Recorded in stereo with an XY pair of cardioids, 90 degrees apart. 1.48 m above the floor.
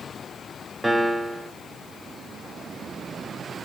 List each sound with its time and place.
0.8 s a piano: 10° right, 1.1 m